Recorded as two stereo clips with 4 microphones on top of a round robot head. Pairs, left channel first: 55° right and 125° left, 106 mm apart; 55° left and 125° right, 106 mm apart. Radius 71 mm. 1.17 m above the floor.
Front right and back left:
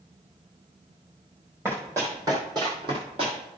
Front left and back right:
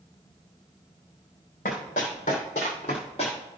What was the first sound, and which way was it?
Running footsteps, 55° left.